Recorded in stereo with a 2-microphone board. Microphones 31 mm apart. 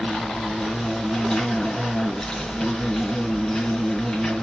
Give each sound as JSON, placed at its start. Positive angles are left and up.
{"t": 0.0, "sound": "an insect", "side_deg": 20, "distance_m": 2.0}